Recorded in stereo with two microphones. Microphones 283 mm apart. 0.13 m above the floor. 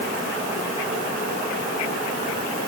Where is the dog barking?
No dog barking in this recording.